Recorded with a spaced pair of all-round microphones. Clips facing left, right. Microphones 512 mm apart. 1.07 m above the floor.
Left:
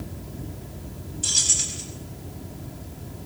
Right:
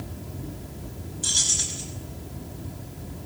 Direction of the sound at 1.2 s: 55° left (ahead or behind).